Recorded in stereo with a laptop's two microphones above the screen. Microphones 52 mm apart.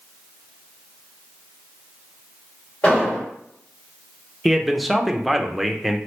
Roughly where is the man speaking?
Centre.